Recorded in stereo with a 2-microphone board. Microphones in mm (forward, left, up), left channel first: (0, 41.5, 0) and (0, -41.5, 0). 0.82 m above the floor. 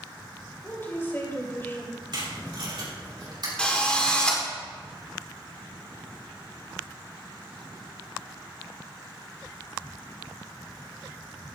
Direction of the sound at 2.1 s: 65° right (ahead or behind).